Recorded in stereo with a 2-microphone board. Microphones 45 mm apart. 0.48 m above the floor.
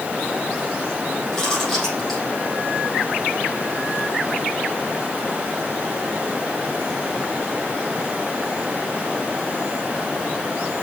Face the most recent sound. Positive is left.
turn(degrees=5)  # may be behind; listen again after turning